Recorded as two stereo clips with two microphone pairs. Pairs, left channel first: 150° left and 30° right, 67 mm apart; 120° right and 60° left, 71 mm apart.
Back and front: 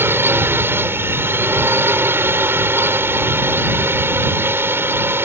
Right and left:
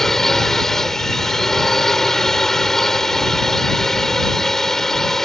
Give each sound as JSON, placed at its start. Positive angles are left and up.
{"t": 0.0, "sound": "a drone", "azimuth_deg": -40}